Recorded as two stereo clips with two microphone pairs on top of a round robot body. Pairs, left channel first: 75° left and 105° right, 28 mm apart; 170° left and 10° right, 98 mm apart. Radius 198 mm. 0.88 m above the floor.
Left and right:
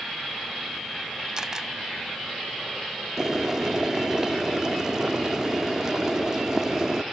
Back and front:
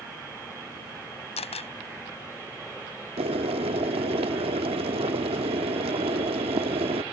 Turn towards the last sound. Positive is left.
turn(degrees=-30)